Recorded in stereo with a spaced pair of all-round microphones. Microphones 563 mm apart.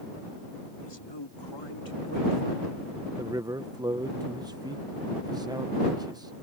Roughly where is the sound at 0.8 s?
Left.